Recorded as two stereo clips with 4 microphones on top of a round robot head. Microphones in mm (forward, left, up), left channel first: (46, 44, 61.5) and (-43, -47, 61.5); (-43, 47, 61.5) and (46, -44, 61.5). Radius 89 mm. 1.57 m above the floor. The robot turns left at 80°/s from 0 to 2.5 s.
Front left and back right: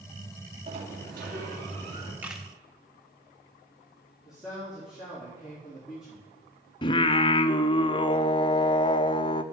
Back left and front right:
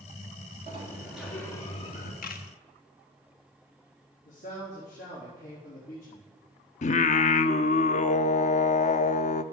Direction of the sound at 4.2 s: 140° left.